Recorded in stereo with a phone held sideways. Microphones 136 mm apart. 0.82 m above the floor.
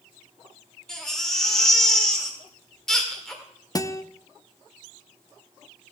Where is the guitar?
30° left (ahead or behind), 0.5 m.